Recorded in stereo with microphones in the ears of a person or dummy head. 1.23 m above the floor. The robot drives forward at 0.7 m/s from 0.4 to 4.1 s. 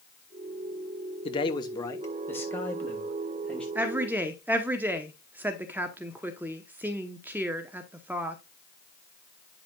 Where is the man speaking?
25° left (ahead or behind), 0.7 m; by 3.6 s 5° left (ahead or behind), 2 m.